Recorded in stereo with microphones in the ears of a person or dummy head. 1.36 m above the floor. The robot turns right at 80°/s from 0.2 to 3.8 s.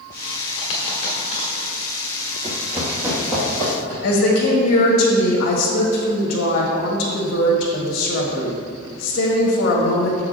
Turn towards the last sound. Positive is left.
turn(degrees=50)  # may be behind; listen again after turning